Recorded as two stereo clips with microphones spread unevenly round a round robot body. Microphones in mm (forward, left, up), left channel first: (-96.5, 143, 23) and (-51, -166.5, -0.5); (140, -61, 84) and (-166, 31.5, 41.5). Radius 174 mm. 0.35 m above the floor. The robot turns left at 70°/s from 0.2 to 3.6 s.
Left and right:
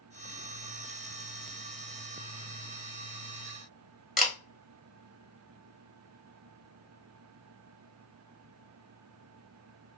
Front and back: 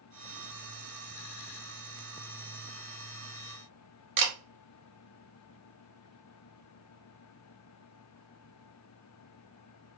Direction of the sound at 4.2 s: 170° right.